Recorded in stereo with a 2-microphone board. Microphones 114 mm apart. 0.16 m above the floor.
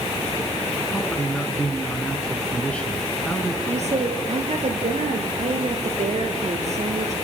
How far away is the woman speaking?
About 3.5 m.